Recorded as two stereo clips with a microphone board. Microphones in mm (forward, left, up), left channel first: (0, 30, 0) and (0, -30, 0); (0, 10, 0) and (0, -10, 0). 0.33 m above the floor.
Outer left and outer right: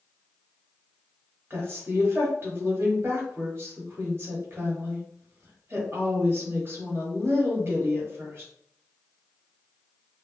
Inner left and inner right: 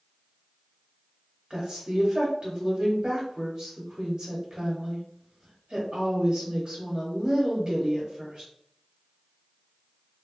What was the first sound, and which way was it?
A woman speaking, 40° right (ahead or behind).